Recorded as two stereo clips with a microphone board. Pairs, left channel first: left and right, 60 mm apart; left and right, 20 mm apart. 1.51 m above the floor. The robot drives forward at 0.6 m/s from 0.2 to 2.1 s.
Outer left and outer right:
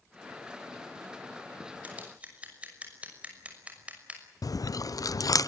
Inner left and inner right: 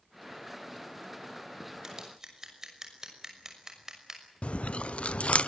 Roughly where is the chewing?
Left.